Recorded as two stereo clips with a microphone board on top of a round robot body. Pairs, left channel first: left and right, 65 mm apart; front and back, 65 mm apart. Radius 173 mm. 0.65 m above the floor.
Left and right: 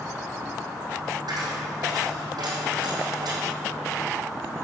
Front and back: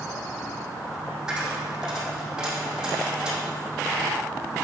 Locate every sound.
1.3 s a dropped coin: 100° right, 2.5 m